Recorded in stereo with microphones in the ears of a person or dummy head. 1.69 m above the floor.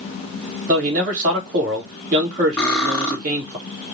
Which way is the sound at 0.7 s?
40° right (ahead or behind).